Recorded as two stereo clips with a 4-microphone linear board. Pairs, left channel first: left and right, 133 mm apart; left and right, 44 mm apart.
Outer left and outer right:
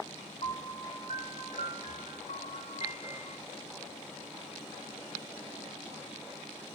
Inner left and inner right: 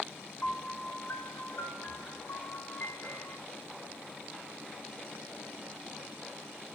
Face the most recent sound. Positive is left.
turn(degrees=60)  # may be behind; listen again after turning